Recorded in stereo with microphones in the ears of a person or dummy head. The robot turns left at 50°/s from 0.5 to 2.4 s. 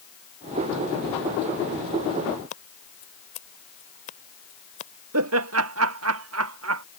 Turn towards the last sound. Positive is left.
turn(degrees=-80)